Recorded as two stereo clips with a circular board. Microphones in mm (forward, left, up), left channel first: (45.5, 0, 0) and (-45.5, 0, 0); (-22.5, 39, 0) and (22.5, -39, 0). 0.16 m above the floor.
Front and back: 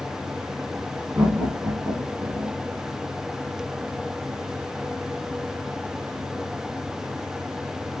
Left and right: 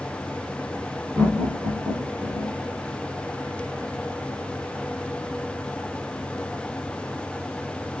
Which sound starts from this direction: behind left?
Laughter, at 1.1 s.